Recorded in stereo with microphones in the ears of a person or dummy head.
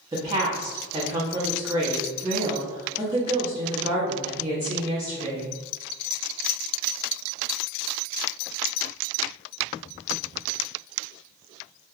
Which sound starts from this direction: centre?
A woman speaking, at 0.1 s.